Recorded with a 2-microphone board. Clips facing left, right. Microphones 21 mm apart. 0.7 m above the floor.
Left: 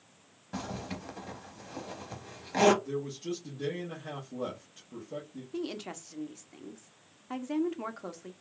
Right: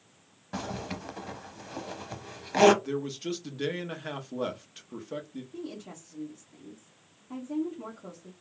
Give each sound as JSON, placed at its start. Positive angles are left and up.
{"t": 0.5, "sound": "a zipper", "side_deg": -15, "distance_m": 0.5}
{"t": 2.8, "sound": "a man speaking", "side_deg": -50, "distance_m": 0.7}
{"t": 5.5, "sound": "a woman speaking", "side_deg": 45, "distance_m": 0.6}